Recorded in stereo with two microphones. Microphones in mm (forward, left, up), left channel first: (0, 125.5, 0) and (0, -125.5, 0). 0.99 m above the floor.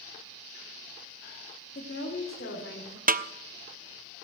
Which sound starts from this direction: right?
A snare drum, at 3.1 s.